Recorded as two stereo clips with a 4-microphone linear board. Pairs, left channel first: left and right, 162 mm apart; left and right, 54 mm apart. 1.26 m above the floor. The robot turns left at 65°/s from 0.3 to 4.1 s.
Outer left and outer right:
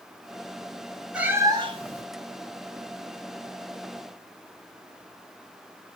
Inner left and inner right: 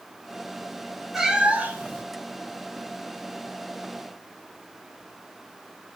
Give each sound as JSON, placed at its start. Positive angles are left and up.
{"t": 1.1, "sound": "a cat meowing", "azimuth_deg": -5, "distance_m": 0.9}